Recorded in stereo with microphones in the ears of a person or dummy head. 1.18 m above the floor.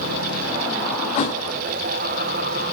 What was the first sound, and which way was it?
A thud, 40° left (ahead or behind).